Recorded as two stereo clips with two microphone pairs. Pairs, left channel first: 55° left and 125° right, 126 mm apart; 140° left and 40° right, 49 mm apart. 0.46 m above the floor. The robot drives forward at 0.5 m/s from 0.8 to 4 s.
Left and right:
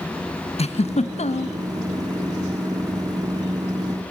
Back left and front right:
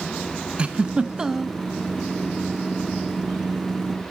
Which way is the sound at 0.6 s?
30° left.